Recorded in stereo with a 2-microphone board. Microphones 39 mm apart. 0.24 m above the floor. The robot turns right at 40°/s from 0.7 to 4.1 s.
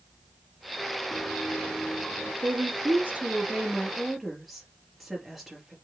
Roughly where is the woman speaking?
Ahead right.